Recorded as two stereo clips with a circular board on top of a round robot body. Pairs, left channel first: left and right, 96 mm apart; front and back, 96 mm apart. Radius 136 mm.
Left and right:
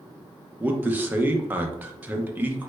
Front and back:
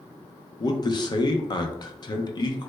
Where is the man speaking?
25° right, 0.7 m.